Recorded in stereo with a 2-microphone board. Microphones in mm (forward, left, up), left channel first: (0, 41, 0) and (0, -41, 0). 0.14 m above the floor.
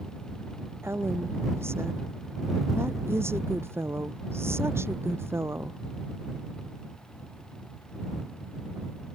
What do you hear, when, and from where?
0.8 s a woman speaking: 30° right (ahead or behind)